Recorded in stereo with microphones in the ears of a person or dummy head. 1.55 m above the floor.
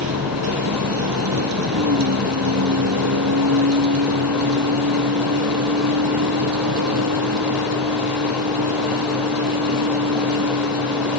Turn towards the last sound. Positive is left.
turn(degrees=-70)  # may be behind; listen again after turning